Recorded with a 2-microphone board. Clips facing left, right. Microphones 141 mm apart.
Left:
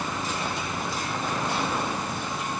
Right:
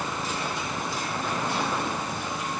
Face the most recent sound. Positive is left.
No sound to turn to.